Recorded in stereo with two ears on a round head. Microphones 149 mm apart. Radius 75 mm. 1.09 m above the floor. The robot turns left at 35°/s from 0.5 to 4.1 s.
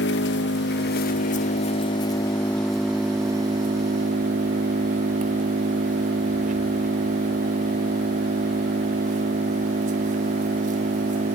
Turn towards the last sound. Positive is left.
turn(degrees=-45)